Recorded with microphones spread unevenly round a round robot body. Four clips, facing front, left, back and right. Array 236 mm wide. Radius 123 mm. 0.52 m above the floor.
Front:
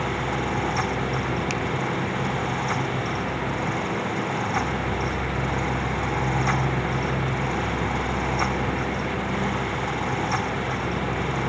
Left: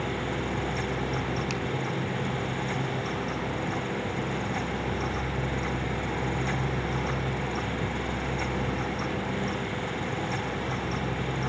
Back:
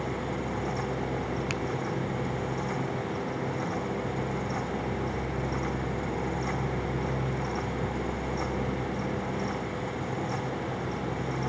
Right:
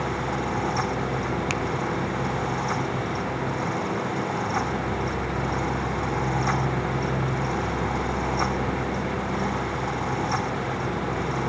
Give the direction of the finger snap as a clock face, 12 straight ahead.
3 o'clock.